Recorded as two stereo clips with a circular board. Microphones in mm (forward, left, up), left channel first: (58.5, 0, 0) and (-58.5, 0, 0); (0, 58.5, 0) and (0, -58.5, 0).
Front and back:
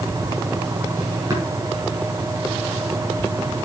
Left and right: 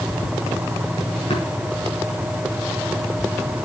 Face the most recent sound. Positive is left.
turn(degrees=125)